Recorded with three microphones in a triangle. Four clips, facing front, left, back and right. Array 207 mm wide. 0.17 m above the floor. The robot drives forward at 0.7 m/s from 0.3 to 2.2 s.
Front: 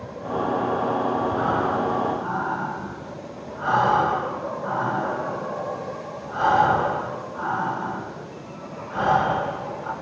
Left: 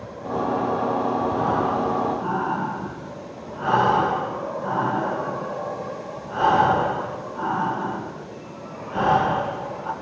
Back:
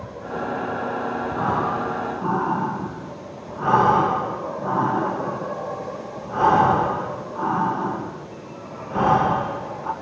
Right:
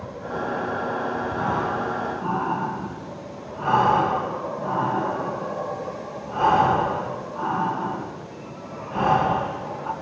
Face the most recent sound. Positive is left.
turn(degrees=170)